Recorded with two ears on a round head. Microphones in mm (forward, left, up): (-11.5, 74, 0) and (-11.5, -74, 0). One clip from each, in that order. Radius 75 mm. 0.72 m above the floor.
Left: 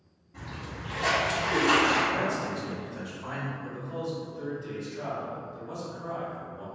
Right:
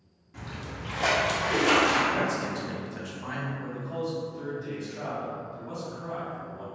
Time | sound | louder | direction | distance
0.3 | a splash | right 1 dB | 40° right (ahead or behind) | 0.8 m
2.1 | a man speaking | right 1 dB | 40° right (ahead or behind) | 0.8 m
3.6 | a man speaking | right 2 dB | 35° right (ahead or behind) | 1.7 m